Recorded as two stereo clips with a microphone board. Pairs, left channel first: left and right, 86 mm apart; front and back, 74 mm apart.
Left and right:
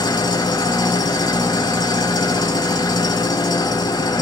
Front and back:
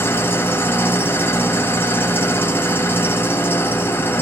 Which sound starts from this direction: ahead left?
An engine running, at 0.0 s.